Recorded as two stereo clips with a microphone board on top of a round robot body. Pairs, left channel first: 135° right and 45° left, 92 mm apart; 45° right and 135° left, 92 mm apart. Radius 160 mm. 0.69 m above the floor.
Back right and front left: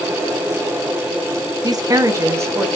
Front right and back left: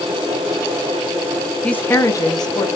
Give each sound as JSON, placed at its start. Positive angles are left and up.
{"t": 1.6, "sound": "a woman speaking", "azimuth_deg": 30, "distance_m": 0.7}